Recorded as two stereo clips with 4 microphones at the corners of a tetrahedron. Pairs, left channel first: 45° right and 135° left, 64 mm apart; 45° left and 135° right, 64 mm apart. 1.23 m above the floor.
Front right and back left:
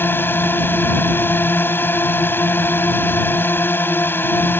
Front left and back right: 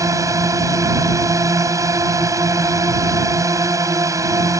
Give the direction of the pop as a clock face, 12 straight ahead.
I don't hear a pop.